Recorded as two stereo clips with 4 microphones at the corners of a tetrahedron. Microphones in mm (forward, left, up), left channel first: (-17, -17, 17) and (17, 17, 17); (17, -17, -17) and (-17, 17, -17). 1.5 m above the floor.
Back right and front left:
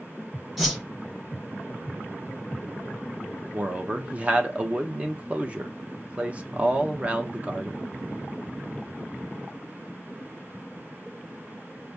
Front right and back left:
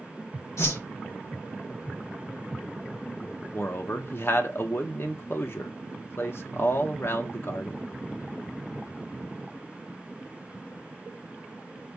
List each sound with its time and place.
0.6 s a whoosh: 40° right, 3.5 m
3.5 s a man speaking: 15° right, 1.1 m